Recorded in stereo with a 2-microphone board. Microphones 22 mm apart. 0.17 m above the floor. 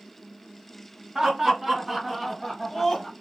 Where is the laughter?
25° right (ahead or behind), 1.4 m; by 3.1 s 15° left (ahead or behind), 1.5 m.